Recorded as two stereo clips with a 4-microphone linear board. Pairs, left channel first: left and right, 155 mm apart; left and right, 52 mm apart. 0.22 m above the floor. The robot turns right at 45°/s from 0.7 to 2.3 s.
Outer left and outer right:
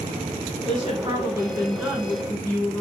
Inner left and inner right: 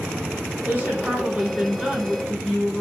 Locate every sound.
0.7 s a woman speaking: 60° right, 1.9 m; by 2.8 s 15° left, 1.9 m